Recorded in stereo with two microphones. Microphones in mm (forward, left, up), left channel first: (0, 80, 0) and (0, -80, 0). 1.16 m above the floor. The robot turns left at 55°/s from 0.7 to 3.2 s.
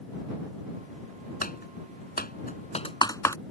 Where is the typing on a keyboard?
60° left (ahead or behind); by 3.4 s 20° left (ahead or behind).